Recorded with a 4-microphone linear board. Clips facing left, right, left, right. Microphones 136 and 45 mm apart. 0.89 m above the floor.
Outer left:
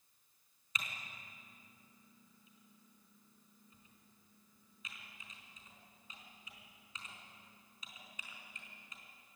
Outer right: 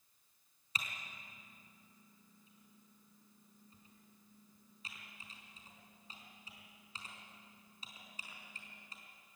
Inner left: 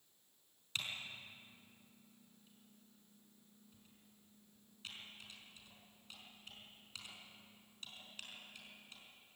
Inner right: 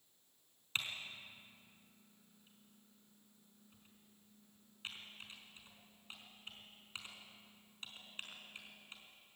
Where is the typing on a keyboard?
35° right (ahead or behind), 4.5 m.